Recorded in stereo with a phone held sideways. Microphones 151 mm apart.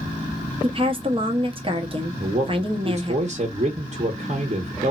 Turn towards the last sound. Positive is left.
turn(degrees=-45)  # may be behind; listen again after turning